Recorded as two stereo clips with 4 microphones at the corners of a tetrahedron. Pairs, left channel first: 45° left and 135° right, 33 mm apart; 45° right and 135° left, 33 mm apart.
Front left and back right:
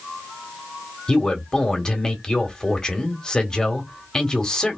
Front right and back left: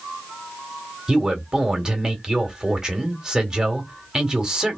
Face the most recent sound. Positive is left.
turn(degrees=80)